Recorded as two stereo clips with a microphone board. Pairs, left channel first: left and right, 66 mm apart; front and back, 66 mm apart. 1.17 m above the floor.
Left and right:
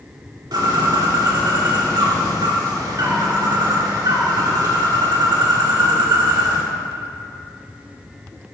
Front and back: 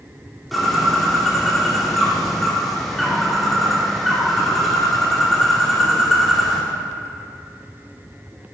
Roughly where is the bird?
Right.